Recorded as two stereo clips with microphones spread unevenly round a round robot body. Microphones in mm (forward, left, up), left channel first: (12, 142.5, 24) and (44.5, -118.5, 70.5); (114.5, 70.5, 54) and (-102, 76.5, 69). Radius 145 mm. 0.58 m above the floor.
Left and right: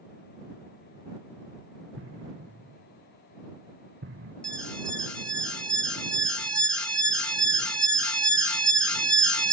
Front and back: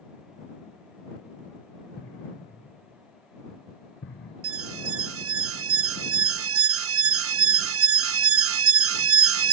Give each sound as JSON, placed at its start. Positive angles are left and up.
{"t": 2.0, "sound": "an explosion", "azimuth_deg": -40}
{"t": 4.4, "sound": "an alarm", "azimuth_deg": 180}